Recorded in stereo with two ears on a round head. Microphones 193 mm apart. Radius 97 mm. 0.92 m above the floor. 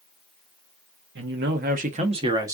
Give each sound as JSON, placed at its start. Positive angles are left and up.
{"t": 1.1, "sound": "a man speaking", "side_deg": -60, "distance_m": 1.2}